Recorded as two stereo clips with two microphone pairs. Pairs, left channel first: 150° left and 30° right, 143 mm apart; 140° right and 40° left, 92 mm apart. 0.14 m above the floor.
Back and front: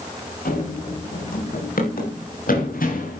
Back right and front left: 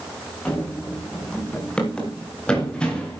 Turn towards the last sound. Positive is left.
turn(degrees=140)